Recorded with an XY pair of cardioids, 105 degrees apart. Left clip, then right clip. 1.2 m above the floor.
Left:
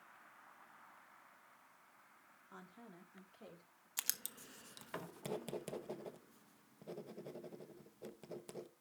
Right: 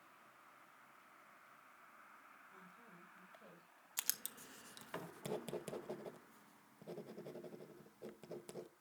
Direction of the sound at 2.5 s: 65° left.